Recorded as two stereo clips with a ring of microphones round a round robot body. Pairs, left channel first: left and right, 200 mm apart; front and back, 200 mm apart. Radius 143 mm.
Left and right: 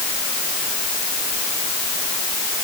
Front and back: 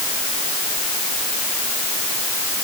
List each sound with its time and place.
Only background noise.